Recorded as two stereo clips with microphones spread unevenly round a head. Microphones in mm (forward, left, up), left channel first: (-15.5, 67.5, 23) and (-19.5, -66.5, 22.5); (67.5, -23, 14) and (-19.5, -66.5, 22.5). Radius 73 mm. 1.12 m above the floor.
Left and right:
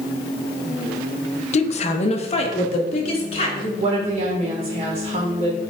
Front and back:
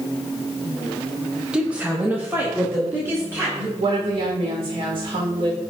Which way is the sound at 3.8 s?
135° right.